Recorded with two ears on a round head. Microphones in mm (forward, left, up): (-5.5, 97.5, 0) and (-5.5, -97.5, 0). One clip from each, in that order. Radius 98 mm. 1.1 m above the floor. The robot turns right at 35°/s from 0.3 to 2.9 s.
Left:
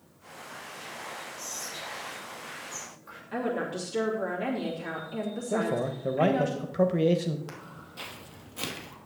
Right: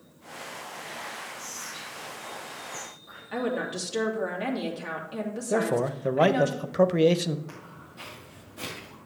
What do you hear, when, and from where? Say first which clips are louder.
1.4 s whispering: even; 40° left (ahead or behind), 5.5 m; by 3.2 s 80° left, 5.5 m
3.3 s a woman speaking: right 1 dB; 20° right (ahead or behind), 2.5 m
5.5 s a man speaking: right 4 dB; 25° right (ahead or behind), 0.5 m
7.5 s footsteps: left 1 dB; 45° left (ahead or behind), 3 m; by 9.0 s 40° left (ahead or behind), 1.9 m